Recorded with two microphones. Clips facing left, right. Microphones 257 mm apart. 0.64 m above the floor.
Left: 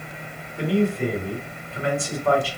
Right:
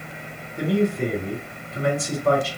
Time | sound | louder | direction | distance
0.6 | a man speaking | even | 45° right (ahead or behind) | 2 m